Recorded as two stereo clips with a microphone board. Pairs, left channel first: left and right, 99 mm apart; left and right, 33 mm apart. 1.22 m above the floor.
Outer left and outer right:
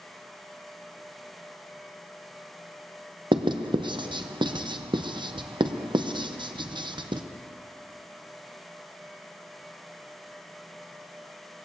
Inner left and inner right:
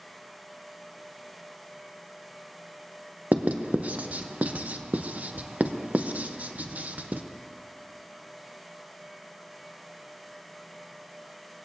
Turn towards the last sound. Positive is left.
turn(degrees=-50)  # may be behind; listen again after turning